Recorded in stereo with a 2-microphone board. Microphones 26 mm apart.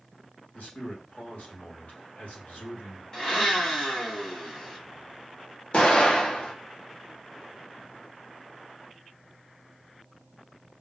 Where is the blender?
25° left (ahead or behind), 1.6 m.